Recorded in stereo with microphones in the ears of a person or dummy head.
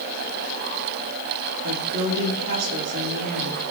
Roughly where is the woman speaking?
Right.